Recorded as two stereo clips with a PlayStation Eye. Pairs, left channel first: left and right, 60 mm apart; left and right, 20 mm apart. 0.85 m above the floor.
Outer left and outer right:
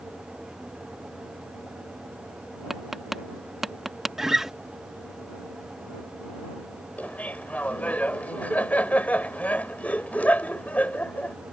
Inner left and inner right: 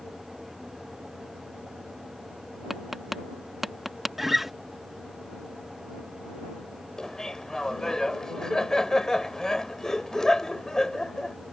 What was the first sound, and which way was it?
Tapping, 5° right (ahead or behind).